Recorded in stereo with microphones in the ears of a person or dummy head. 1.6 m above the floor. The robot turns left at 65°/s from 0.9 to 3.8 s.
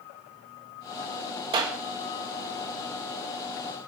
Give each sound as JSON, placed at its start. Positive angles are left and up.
{"t": 1.5, "sound": "a clap", "side_deg": -25, "distance_m": 0.6}